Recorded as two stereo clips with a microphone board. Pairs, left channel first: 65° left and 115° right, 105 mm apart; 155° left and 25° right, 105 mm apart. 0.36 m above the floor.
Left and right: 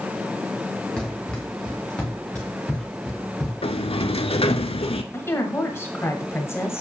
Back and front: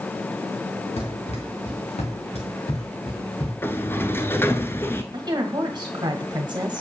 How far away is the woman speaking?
About 1.8 m.